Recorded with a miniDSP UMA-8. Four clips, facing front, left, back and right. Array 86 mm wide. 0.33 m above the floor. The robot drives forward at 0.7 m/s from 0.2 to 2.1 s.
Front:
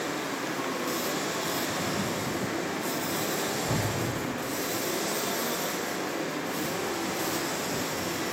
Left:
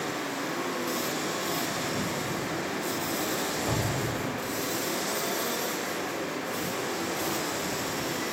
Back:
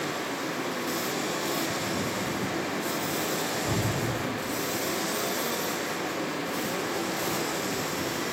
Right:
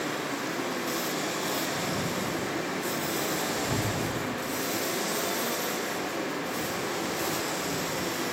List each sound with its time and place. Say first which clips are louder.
3.7 s an explosion: even, back 1 dB; 90° left, 0.8 m